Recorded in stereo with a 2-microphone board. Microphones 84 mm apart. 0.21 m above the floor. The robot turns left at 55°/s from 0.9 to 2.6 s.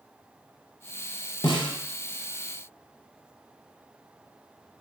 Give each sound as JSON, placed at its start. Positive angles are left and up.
{"t": 1.4, "sound": "a snare drum", "side_deg": 70, "distance_m": 0.7}